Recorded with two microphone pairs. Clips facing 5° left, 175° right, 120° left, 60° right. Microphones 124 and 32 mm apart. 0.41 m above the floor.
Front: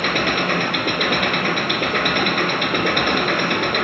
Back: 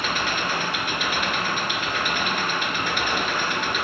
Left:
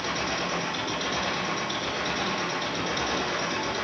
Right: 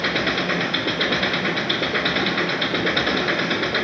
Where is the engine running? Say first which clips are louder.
Front 6 dB, right 7 dB; 20° right, 3 m.